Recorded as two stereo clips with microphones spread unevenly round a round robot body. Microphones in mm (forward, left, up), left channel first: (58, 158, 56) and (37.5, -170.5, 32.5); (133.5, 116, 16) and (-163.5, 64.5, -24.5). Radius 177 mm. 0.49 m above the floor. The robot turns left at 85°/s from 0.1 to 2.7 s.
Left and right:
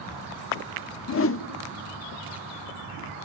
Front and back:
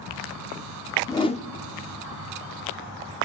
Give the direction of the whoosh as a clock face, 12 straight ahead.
9 o'clock.